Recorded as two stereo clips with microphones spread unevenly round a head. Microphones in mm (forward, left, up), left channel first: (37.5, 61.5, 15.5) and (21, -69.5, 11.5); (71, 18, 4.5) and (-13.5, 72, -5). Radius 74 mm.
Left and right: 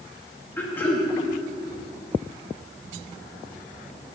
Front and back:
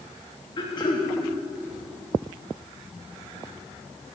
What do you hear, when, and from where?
0.6 s throat clearing: 10° left, 3 m